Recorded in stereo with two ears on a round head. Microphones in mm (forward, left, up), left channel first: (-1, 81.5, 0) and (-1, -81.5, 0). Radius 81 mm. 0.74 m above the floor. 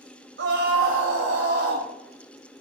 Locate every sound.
0.4 s a scream: 70° right (ahead or behind), 4 m